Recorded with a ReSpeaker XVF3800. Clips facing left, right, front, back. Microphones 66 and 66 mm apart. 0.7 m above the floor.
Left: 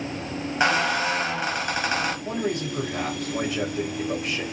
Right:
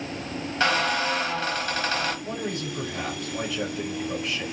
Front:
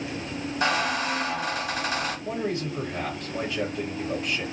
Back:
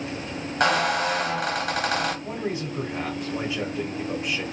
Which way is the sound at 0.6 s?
160° left.